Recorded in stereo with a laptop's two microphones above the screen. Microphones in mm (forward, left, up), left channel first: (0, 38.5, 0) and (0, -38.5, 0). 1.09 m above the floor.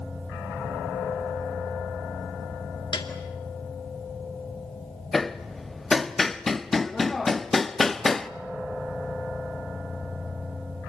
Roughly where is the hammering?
Centre.